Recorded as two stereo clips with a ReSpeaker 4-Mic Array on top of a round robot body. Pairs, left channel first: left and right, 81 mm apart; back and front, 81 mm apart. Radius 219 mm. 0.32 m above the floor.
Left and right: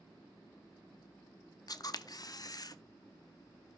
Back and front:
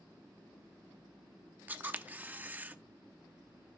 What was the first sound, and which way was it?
A camera shutter, 65° left.